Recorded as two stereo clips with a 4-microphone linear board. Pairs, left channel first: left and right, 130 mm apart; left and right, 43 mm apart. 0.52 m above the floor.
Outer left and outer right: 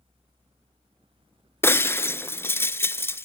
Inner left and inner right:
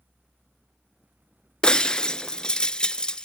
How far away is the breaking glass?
About 0.5 m.